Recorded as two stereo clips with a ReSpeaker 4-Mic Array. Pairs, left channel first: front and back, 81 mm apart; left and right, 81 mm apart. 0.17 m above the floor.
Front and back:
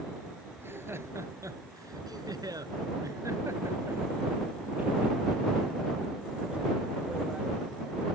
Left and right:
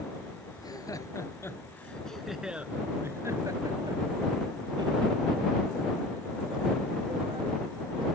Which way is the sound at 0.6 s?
120° left.